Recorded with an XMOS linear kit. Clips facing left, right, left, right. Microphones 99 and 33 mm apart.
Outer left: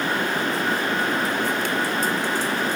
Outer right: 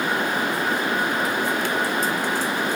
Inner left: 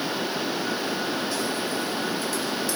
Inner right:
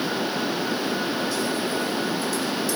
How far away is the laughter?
No laughter in this recording.